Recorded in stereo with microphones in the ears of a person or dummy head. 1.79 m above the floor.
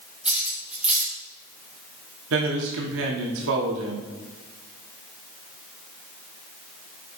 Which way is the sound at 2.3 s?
75° right (ahead or behind).